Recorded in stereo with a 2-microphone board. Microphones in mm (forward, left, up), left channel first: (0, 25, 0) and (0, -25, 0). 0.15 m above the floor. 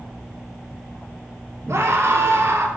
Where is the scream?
65° right (ahead or behind), 2.5 m.